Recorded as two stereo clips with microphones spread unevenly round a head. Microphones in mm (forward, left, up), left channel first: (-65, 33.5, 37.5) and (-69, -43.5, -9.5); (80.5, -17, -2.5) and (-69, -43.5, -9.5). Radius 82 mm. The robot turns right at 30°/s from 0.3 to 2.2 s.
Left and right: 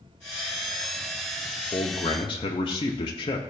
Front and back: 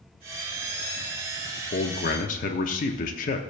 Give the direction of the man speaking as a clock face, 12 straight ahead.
11 o'clock.